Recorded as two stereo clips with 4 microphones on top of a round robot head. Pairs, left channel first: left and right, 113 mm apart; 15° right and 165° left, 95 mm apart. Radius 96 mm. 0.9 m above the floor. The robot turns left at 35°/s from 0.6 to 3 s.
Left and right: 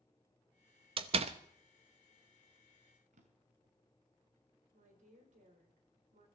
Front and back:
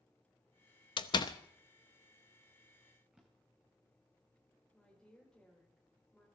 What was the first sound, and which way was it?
A door slam, 50° right.